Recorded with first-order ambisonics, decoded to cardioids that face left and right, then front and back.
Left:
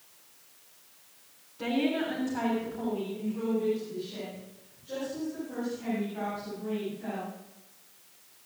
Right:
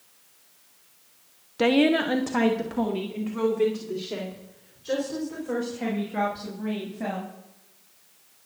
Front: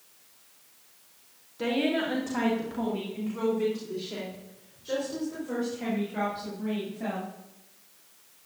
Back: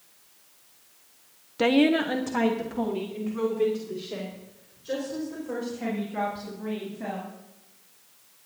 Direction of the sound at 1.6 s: 130° right.